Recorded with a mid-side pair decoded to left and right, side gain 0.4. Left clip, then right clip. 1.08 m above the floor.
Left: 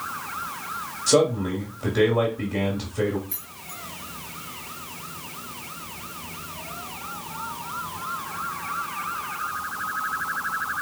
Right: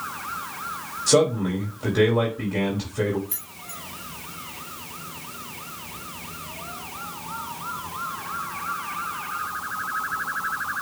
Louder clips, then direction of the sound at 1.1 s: Even; 5° right.